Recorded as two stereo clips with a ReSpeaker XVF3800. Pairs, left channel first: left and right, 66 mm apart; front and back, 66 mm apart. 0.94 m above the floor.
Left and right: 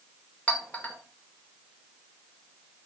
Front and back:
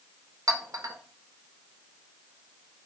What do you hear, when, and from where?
0.5 s a clink: 155° left, 0.5 m